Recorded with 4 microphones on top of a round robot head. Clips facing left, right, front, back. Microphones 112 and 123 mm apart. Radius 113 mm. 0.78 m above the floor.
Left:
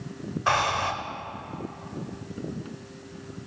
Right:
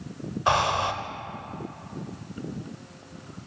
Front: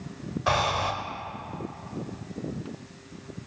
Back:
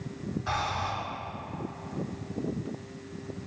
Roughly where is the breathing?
Ahead.